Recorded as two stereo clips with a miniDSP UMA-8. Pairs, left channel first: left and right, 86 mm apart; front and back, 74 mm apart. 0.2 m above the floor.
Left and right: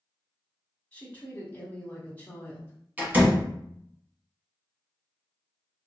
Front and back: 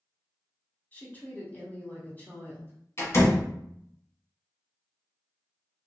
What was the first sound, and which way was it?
A woman speaking, 40° left.